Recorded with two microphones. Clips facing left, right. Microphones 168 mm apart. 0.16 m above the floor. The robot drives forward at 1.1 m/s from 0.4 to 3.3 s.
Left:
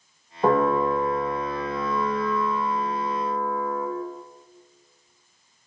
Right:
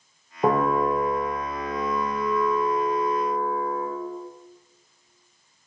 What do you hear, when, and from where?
0.4 s a piano: 10° right (ahead or behind), 3 m; by 3.9 s 20° right (ahead or behind), 1.3 m